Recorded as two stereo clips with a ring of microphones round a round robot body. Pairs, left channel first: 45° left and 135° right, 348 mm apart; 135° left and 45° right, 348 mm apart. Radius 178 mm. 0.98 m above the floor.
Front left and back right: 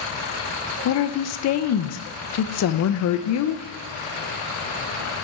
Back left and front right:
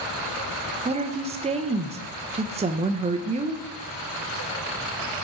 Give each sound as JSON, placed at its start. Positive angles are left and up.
{"t": 0.8, "sound": "a woman speaking", "azimuth_deg": 20, "distance_m": 0.5}